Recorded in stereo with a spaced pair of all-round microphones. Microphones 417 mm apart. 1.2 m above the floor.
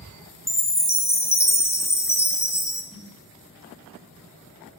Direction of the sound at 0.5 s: 5° left (ahead or behind).